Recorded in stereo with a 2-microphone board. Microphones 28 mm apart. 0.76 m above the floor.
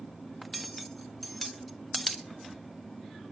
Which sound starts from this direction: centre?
Cutlery clinking, at 0.4 s.